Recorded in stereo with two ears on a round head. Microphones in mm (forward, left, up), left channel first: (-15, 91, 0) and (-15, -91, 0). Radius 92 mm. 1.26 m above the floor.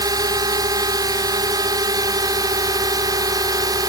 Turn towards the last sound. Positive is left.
turn(degrees=-20)  # may be behind; listen again after turning